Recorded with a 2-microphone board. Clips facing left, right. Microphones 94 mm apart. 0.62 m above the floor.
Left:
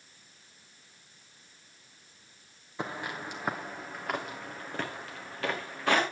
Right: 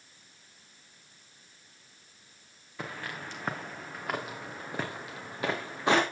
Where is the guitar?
I don't hear a guitar.